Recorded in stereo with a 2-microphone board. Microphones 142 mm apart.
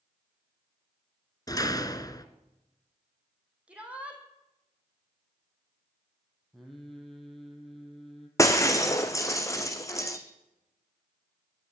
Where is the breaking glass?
20° left (ahead or behind), 2.0 m.